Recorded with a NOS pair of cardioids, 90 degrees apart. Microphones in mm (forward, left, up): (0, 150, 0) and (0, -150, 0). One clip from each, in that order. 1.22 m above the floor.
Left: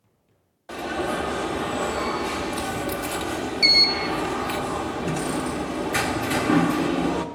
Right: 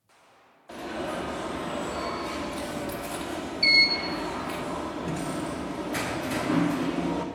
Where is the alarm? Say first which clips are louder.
Left 6 dB; 40° left, 1.3 m.